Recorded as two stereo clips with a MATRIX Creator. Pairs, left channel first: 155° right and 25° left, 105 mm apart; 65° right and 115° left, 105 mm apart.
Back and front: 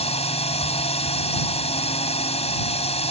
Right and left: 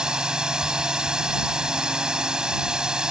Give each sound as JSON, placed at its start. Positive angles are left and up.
{"t": 0.0, "sound": "a drone", "azimuth_deg": -165}